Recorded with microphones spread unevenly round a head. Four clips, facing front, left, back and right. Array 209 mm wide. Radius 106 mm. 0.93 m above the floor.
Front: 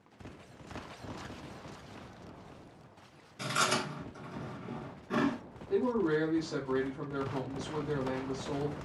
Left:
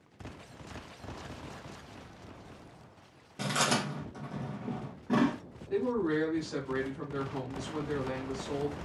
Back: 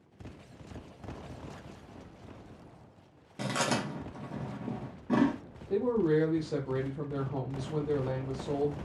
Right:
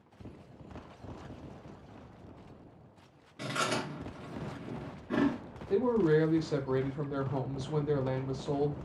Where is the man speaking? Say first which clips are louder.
Right 3 dB, back 2 dB; 100° right, 0.7 m.